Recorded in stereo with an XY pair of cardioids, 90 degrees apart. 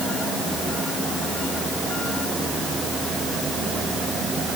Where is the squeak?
No squeak in this recording.